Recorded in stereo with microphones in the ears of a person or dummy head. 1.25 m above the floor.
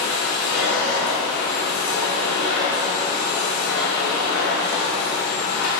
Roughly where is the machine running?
Left.